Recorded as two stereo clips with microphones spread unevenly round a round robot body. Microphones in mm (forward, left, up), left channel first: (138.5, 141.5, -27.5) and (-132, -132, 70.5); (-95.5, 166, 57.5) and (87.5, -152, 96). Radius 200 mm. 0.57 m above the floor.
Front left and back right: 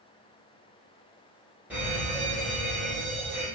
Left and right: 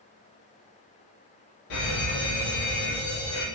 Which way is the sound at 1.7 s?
135° left.